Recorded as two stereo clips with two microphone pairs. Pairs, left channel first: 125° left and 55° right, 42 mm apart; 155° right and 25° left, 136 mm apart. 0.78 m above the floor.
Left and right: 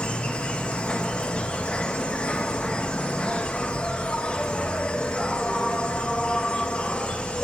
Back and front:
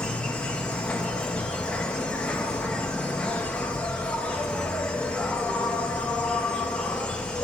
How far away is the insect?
About 0.8 m.